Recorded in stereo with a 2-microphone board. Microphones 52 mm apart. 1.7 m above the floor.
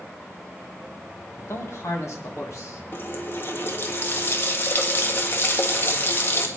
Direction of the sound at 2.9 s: 45° left (ahead or behind).